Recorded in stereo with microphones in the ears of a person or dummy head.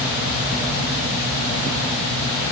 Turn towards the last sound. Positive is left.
No sound to turn to.